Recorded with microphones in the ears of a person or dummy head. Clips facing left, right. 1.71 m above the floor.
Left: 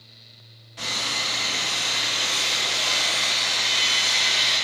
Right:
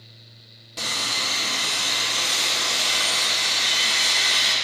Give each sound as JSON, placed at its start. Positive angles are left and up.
{"t": 0.8, "sound": "sawing", "side_deg": -60, "distance_m": 2.5}